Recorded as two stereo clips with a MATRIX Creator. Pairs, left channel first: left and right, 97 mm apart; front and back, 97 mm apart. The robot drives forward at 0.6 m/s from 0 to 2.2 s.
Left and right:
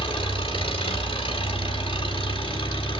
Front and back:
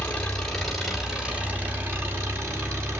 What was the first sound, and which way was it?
An engine running, 75° left.